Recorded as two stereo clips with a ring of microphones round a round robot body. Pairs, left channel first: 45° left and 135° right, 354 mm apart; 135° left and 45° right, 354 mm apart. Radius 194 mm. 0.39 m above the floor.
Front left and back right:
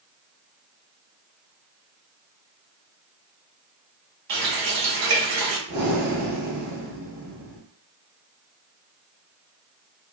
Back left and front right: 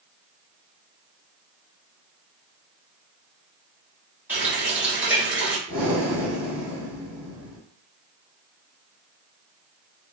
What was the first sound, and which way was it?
A running tap, 130° right.